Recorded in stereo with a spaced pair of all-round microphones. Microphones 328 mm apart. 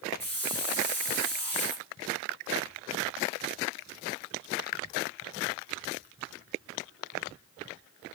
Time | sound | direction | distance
0.2 | a hiss | 5° left (ahead or behind) | 2 m